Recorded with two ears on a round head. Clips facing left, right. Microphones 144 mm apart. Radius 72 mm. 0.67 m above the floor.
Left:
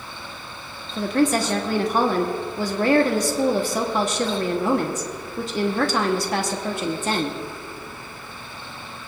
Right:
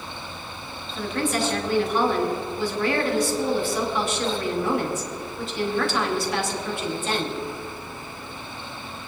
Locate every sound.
1.0 s a woman speaking: 35° left (ahead or behind), 1.1 m